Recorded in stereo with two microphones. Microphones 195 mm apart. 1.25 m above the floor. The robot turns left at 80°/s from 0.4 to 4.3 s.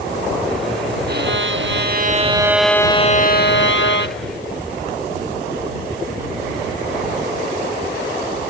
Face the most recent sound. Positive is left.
turn(degrees=45)